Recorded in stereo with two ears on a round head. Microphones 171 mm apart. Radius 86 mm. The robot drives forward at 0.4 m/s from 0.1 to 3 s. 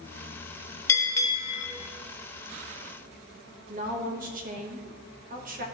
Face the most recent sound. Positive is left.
turn(degrees=-45)  # may be behind; listen again after turning